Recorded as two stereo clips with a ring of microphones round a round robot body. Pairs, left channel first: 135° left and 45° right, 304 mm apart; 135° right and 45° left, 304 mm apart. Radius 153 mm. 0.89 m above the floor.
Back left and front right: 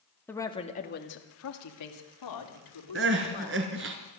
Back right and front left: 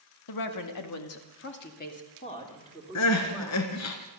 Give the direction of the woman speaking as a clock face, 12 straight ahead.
5 o'clock.